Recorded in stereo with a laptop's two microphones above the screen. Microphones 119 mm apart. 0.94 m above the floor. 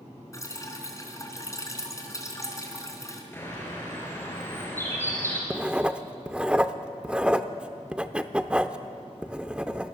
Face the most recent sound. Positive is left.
turn(degrees=-10)  # may be behind; listen again after turning